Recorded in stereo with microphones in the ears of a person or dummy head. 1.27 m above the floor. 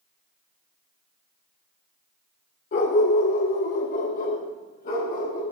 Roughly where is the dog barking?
Left.